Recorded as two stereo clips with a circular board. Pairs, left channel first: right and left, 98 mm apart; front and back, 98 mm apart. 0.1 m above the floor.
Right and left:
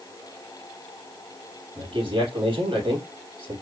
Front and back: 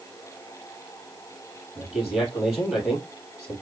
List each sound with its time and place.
1.8 s a man speaking: 90° left, 3.5 m